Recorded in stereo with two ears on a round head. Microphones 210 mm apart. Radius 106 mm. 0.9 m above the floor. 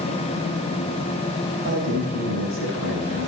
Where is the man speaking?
55° right (ahead or behind), 4.5 m.